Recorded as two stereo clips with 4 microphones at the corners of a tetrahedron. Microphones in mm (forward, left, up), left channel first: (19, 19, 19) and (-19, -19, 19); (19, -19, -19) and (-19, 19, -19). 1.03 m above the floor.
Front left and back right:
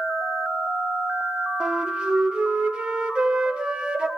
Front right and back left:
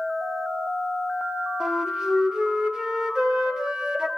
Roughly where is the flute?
Behind.